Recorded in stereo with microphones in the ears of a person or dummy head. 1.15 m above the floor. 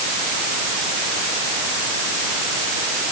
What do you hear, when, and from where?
Only background noise.